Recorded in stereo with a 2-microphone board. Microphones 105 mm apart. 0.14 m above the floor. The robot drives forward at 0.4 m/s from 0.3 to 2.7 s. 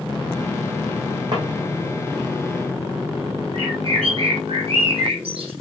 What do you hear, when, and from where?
1.3 s a drawer: 40° right (ahead or behind), 4 m
3.5 s a bird: 60° right (ahead or behind), 4.5 m